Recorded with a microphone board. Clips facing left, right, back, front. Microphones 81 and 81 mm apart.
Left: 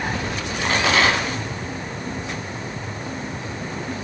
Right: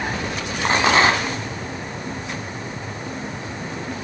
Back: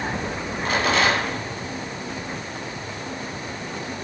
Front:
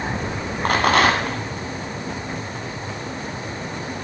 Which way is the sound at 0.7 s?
30° right.